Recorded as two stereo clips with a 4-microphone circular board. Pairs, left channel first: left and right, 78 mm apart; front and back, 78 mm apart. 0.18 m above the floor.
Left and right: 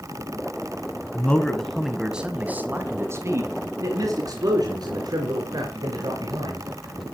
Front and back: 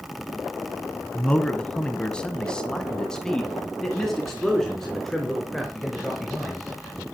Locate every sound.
1.1 s a man speaking: 50° left, 1.7 m; by 6.7 s 90° right, 4 m